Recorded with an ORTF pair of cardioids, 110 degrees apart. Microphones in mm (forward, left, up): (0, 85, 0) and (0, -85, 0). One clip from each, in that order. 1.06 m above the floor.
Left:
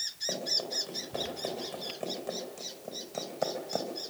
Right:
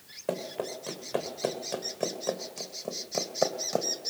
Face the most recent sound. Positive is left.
turn(degrees=-35)